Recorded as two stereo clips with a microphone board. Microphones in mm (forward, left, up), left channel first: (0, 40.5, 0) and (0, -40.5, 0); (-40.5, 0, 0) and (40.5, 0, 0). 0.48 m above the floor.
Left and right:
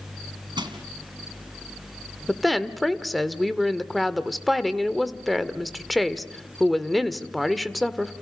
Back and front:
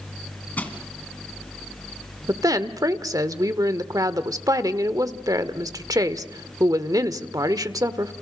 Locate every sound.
0.6 s crushing: 110° right, 2.5 m
2.3 s a woman speaking: straight ahead, 1.2 m